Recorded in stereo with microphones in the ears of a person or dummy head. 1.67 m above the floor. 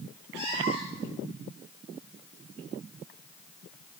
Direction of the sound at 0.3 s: 35° right (ahead or behind).